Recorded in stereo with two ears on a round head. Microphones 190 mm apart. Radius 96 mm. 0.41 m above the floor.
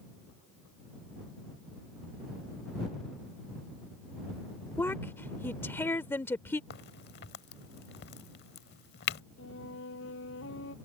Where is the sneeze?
No sneeze in this recording.